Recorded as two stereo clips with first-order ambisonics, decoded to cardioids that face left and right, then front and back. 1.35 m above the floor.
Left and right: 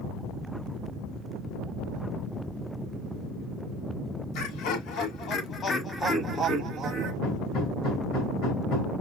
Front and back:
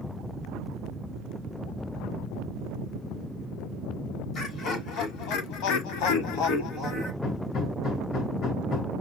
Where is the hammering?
45° left, 3.5 m.